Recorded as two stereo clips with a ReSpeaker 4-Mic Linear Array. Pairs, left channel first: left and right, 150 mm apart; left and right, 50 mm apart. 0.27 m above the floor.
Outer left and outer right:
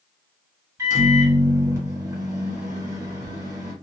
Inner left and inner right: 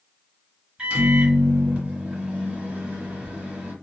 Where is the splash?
No splash in this recording.